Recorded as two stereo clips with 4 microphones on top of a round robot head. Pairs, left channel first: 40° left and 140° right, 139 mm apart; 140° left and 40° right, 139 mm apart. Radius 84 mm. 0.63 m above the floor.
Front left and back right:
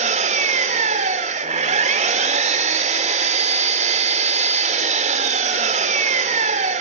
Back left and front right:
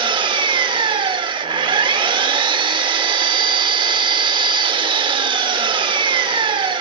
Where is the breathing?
No breathing in this recording.